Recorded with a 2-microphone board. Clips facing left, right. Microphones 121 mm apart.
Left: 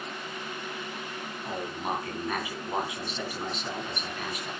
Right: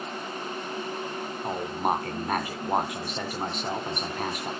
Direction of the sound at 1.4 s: 45° right (ahead or behind).